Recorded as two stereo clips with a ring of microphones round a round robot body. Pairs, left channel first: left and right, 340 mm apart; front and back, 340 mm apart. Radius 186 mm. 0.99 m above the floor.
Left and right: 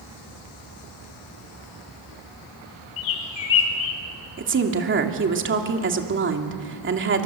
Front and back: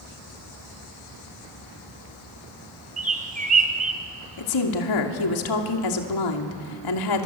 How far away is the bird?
About 3 m.